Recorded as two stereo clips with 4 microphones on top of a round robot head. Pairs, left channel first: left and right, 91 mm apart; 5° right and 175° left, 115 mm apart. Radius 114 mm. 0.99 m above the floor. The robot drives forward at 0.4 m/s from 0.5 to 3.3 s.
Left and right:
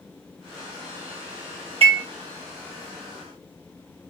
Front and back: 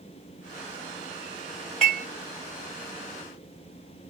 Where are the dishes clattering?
90° right, 2 m; by 2.0 s 95° right, 2 m.